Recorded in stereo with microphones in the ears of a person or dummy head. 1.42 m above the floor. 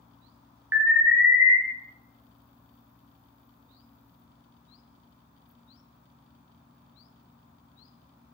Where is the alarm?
15° right (ahead or behind), 0.5 m.